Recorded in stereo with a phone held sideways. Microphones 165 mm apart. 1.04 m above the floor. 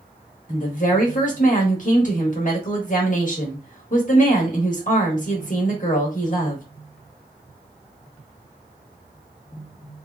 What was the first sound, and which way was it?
A woman speaking, 50° left (ahead or behind).